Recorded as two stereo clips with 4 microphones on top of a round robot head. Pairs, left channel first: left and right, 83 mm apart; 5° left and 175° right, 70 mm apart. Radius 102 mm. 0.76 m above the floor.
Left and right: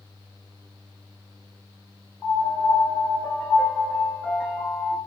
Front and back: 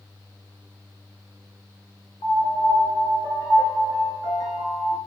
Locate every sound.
2.2 s a piano: 20° left, 5.5 m